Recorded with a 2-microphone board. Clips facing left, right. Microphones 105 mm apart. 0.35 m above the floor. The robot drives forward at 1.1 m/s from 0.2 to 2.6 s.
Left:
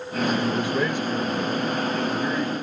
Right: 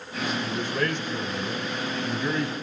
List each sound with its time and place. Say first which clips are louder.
0.5 s a man speaking: left 4 dB; 15° left (ahead or behind), 1.5 m; by 2.5 s 5° left (ahead or behind), 3 m